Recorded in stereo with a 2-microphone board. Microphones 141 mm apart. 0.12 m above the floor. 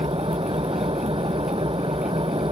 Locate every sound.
0.0 s an engine running: 40° right (ahead or behind)